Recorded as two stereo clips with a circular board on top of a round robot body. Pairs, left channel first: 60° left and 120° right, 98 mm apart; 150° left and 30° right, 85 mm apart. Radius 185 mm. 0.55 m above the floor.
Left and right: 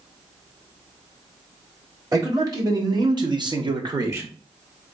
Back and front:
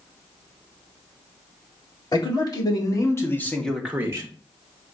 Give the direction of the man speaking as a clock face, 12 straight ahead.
6 o'clock.